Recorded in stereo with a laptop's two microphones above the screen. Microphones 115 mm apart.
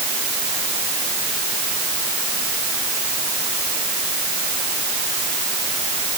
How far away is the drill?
I don't hear a drill.